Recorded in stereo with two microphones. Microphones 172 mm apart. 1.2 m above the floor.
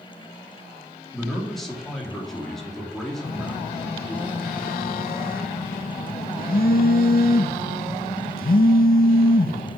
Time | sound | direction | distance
1.1 | a man speaking | centre (ahead or behind) | 3 m
3.2 | a phone buzzing | 60° left (ahead or behind) | 0.6 m